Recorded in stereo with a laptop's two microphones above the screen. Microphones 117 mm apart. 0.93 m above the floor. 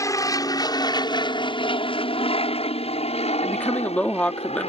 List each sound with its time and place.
0.0 s an aircraft: 30° left (ahead or behind); by 4.7 s 60° left (ahead or behind)
3.4 s a woman speaking: 10° left (ahead or behind)